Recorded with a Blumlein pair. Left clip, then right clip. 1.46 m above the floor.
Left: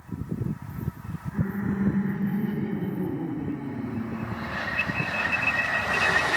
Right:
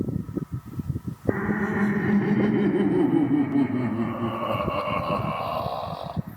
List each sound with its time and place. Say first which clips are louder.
1.3 s laughter: right 8 dB; 45° right, 5.5 m; by 6.2 s 50° right, 3 m